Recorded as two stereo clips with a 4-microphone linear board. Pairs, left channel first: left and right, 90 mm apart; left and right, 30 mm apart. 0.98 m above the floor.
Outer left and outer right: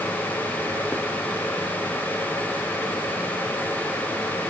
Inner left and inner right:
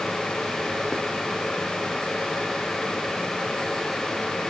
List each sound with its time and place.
Only background noise.